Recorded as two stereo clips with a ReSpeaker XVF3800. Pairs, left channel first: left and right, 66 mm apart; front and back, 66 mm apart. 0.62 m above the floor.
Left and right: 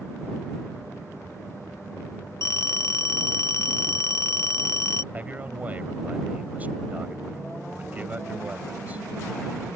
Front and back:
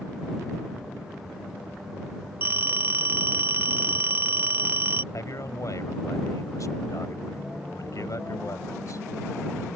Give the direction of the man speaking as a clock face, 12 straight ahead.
1 o'clock.